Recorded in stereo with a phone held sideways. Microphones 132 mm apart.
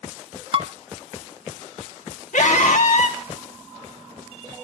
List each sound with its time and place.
0.5 s dishes clattering: 45° right (ahead or behind), 1.3 m
2.3 s a scream: 65° left (ahead or behind), 2.5 m